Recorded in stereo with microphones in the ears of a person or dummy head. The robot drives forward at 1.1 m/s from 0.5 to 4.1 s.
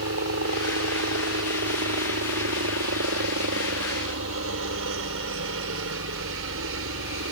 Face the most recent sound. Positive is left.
turn(degrees=-65)  # may be behind; listen again after turning